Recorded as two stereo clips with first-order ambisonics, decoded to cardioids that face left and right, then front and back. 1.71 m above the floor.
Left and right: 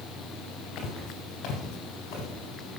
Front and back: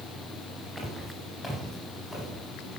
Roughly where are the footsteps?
Left.